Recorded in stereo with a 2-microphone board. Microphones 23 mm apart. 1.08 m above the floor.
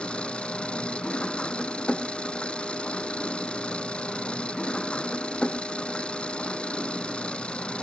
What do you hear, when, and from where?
0.0 s an engine running: 55° left (ahead or behind)